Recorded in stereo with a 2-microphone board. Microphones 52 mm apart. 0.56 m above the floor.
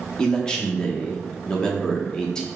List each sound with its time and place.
0.2 s a man speaking: 15° left (ahead or behind), 0.7 m